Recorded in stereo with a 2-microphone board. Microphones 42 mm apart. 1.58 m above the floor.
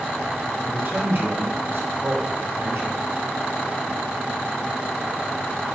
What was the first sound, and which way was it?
A man speaking, 50° right (ahead or behind).